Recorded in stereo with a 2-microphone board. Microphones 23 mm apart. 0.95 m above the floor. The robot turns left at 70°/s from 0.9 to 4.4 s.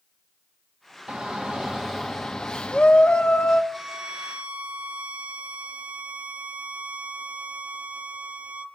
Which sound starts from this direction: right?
A shout, at 1.1 s.